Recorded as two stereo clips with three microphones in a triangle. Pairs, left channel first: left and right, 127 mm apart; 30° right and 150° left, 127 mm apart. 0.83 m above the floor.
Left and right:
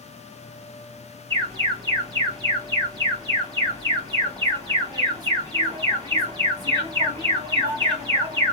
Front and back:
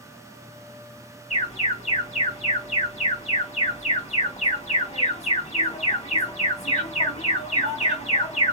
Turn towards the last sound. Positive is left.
turn(degrees=-40)